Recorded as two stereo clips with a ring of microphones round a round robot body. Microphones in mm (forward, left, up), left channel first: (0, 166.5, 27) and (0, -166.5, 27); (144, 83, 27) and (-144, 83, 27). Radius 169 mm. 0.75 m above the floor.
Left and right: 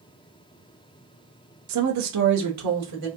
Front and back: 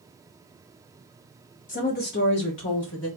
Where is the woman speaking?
60° right, 1.0 m; by 3.1 s 50° right, 2.0 m.